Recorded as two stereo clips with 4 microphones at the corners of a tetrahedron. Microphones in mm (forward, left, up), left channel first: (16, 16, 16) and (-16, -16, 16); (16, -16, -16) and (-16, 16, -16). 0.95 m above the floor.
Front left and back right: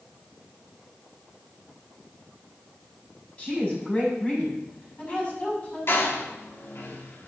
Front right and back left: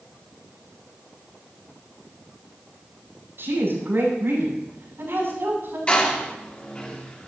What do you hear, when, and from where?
3.4 s a woman speaking: 100° left, 7 m
5.9 s a door slam: 15° left, 2.0 m